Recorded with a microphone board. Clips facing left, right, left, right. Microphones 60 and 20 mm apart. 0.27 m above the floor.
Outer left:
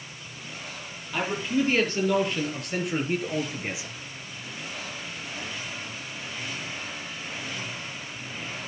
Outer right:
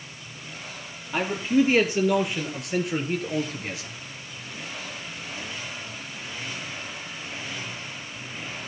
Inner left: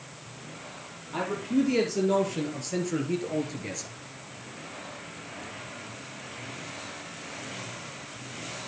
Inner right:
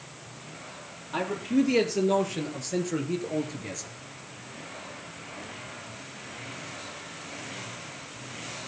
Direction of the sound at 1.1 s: 20° right (ahead or behind).